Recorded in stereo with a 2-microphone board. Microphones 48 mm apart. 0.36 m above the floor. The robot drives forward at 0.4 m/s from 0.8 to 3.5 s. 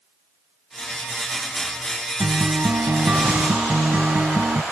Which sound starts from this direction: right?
A guitar, at 2.2 s.